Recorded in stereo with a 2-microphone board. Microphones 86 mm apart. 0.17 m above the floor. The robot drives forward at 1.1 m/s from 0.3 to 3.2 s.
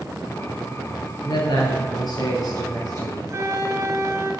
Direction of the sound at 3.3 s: 35° right (ahead or behind).